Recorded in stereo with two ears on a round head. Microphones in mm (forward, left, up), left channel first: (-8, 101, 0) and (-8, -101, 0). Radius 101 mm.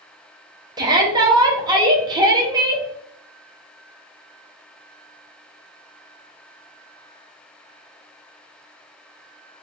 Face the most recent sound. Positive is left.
turn(degrees=-20)  # may be behind; listen again after turning